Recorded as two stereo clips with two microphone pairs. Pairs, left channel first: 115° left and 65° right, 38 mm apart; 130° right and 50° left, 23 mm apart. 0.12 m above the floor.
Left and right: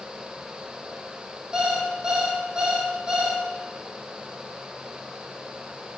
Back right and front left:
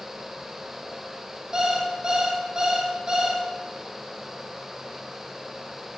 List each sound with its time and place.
1.5 s an alarm clock: 5° right, 1.9 m